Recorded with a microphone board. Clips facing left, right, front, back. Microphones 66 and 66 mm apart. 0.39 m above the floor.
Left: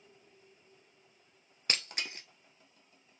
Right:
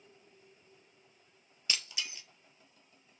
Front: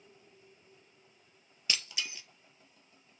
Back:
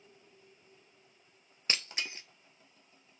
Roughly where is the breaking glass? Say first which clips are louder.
Left 2 dB, back 1 dB; behind left.